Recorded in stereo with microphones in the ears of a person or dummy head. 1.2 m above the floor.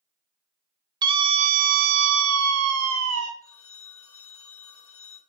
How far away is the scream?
About 1.0 m.